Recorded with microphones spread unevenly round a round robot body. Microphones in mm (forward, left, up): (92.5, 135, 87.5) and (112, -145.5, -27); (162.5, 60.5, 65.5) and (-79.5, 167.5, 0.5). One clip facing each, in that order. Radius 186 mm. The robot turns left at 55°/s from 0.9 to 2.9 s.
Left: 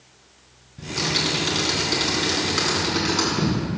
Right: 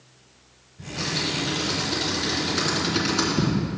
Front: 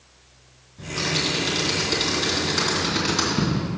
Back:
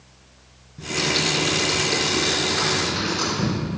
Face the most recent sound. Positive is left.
turn(degrees=-10)